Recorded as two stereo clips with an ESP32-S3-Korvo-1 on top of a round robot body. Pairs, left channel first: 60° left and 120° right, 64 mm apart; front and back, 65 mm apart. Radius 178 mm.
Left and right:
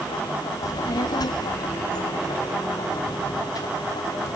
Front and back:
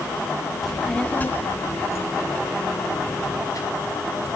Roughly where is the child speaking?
Left.